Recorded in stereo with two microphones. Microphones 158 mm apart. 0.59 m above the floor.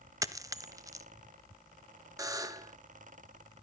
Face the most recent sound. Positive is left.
turn(degrees=-20)  # may be behind; listen again after turning